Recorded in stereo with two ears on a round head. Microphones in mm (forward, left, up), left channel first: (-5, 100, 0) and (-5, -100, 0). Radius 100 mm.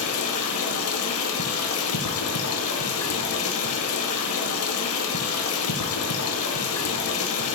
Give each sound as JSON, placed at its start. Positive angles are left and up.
{"t": 0.0, "sound": "running water", "side_deg": 70, "distance_m": 0.7}